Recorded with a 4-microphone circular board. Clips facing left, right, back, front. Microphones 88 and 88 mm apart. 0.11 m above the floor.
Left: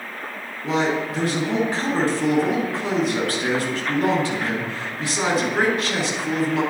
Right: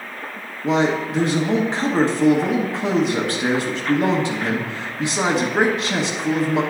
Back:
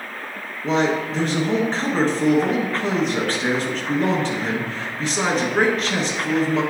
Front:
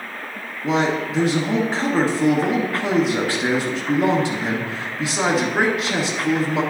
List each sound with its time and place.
0.6 s a man speaking: 70° right, 1.1 m